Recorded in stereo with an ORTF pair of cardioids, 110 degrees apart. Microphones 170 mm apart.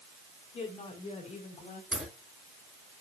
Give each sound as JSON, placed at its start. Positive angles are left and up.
{"t": 0.5, "sound": "a woman speaking", "azimuth_deg": 35, "distance_m": 5.5}
{"t": 1.9, "sound": "a crack", "azimuth_deg": -5, "distance_m": 6.0}